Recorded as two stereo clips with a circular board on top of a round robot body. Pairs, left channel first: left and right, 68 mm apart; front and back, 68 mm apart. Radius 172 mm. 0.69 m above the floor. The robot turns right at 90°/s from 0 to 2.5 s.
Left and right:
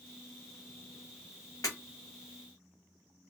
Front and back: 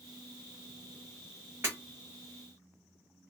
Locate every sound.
1.6 s breaking glass: 125° left, 1.2 m; by 1.8 s 135° left, 1.2 m